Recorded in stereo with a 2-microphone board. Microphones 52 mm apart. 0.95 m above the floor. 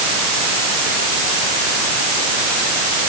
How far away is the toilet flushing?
No toilet flushing in this recording.